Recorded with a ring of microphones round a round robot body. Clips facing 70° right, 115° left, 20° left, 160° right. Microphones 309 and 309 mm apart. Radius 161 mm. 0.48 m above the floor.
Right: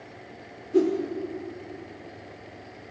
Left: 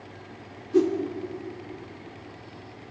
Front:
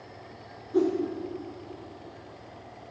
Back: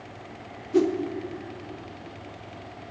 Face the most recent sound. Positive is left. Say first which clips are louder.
# even, back 3 dB
turn(degrees=-175)